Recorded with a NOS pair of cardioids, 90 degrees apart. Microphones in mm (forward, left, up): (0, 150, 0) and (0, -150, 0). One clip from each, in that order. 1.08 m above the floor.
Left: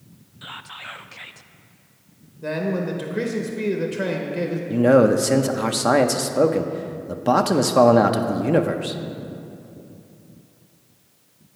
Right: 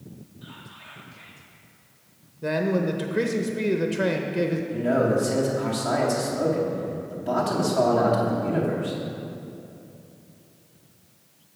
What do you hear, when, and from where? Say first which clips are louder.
0.4 s whispering: left 10 dB; 55° left, 0.6 m
2.4 s a man speaking: right 1 dB; 10° right, 0.7 m
4.7 s a man speaking: left 9 dB; 65° left, 0.7 m